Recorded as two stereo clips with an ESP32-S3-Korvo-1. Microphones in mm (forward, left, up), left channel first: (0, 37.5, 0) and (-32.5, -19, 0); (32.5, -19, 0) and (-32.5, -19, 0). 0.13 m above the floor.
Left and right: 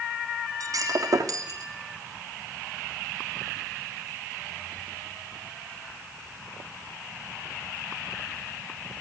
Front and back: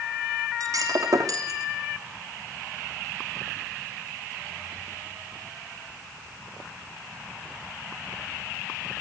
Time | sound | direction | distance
0.6 | breaking glass | 145° right | 3 m